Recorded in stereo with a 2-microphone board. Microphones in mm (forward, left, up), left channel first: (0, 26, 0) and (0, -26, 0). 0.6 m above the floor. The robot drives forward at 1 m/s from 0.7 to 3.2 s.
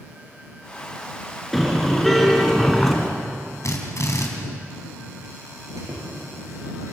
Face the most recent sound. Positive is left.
turn(degrees=-80)